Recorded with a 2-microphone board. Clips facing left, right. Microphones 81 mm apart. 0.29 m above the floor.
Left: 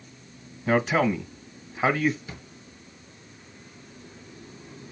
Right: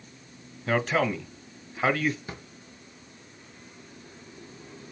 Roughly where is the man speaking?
Centre.